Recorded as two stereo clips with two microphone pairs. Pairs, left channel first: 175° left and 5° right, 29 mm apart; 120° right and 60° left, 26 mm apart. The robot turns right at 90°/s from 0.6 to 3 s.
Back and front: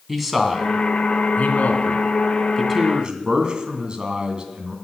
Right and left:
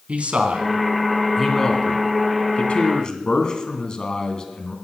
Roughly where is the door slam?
No door slam in this recording.